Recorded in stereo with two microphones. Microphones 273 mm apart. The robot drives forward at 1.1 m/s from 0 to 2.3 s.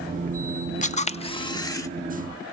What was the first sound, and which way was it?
A camera shutter, 25° left (ahead or behind).